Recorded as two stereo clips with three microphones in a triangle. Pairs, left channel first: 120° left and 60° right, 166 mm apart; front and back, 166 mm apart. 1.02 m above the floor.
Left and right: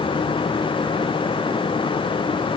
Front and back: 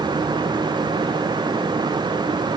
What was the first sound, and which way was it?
Only background noise.